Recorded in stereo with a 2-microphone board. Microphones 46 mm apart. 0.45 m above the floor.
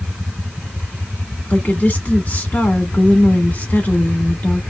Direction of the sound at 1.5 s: 40° left (ahead or behind).